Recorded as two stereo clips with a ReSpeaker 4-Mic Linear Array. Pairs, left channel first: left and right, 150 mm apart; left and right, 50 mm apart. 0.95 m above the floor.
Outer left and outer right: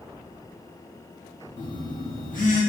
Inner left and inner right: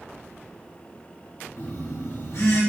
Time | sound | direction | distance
1.6 | a phone buzzing | 60° left (ahead or behind) | 0.9 m